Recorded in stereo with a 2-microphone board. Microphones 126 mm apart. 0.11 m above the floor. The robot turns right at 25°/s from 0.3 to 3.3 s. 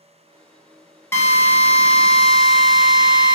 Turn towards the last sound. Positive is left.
turn(degrees=-160)